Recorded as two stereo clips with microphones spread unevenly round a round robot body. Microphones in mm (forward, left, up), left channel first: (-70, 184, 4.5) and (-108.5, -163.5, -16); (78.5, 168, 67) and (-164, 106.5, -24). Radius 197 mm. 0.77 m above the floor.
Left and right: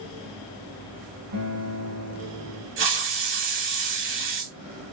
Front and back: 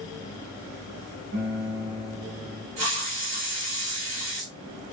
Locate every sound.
1.3 s a guitar: 110° right, 3.5 m
2.8 s a hiss: 100° right, 4 m